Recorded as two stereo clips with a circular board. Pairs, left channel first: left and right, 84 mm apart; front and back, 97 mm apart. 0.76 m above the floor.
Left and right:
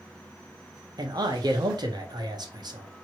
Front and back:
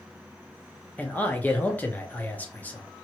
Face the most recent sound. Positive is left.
turn(degrees=-70)